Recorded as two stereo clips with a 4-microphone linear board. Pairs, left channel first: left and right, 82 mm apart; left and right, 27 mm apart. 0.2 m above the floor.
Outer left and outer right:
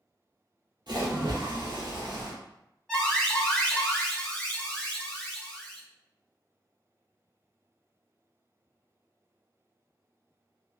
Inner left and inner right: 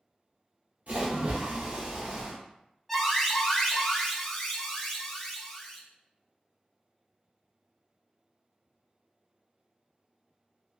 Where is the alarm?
10° left (ahead or behind), 1.4 m.